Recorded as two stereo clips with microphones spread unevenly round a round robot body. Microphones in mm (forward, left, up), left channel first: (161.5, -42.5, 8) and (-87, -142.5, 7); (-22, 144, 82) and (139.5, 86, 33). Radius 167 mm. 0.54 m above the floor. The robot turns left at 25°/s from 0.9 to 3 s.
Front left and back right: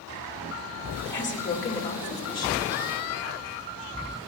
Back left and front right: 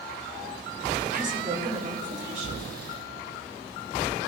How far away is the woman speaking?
About 1.8 m.